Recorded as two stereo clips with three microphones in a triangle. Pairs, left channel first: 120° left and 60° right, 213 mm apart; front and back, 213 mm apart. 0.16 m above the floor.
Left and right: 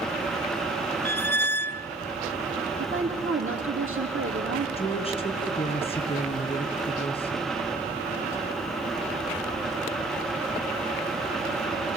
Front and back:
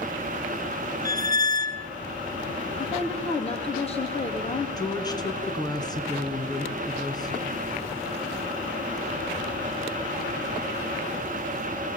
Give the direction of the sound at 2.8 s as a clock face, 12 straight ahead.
2 o'clock.